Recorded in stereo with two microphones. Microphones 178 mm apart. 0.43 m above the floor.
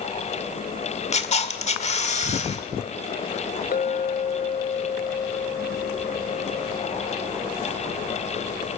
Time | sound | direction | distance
1.1 | a camera shutter | 40° left (ahead or behind) | 1.6 m
3.7 | a clink | 55° left (ahead or behind) | 1.1 m